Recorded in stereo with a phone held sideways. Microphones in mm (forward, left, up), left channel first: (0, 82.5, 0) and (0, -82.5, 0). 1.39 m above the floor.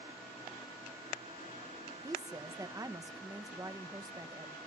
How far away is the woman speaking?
About 1.2 m.